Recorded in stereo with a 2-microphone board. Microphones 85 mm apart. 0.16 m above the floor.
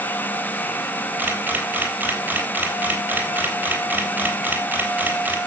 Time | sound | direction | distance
1.2 | a camera shutter | 20° right (ahead or behind) | 3.5 m